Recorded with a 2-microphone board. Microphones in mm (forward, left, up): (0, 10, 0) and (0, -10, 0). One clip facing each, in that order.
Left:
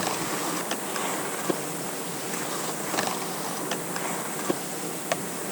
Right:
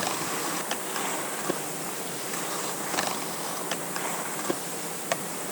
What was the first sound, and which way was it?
Only background noise.